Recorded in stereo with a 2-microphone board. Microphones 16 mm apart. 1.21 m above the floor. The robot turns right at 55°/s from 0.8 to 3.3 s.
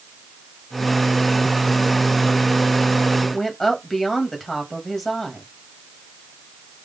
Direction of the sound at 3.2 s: Centre (ahead or behind).